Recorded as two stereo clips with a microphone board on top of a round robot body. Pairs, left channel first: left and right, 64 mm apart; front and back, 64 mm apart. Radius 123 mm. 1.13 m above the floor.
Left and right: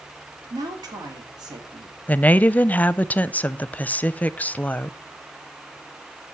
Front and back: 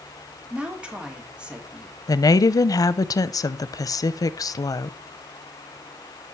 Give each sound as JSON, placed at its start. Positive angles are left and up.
{"t": 0.5, "sound": "a woman speaking", "azimuth_deg": -105, "distance_m": 3.0}
{"t": 2.1, "sound": "a woman speaking", "azimuth_deg": 25, "distance_m": 0.6}